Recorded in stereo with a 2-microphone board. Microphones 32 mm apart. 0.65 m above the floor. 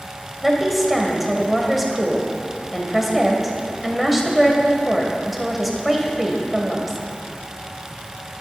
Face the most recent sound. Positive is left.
turn(degrees=-5)  # may be behind; listen again after turning